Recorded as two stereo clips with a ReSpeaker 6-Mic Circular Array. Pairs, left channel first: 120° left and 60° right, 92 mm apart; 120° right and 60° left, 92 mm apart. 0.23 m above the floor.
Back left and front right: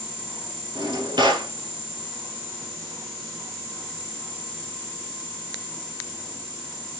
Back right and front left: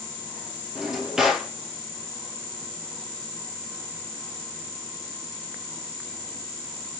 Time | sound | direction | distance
0.8 | a drawer | 25° right | 2.5 m